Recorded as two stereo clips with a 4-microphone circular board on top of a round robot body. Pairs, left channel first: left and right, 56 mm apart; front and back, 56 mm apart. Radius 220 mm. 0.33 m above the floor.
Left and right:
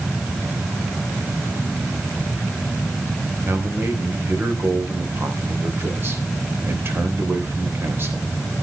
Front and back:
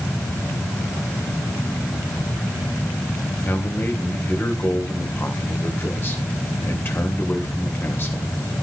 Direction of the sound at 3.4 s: 45° right.